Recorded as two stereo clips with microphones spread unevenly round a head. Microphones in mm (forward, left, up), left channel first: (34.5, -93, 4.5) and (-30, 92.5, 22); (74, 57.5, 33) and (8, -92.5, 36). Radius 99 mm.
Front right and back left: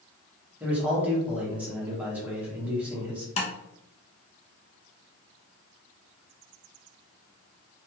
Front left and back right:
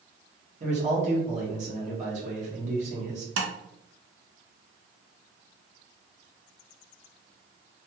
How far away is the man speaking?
About 1.1 m.